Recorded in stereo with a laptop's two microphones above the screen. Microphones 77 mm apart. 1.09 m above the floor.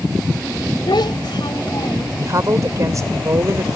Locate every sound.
0.9 s a child speaking: 75° left (ahead or behind)
2.2 s a woman speaking: 45° right (ahead or behind)